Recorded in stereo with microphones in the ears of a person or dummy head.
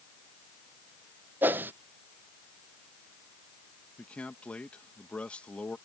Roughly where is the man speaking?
Centre.